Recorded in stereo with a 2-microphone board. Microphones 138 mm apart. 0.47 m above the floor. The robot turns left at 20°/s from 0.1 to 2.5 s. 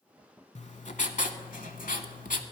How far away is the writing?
About 0.7 m.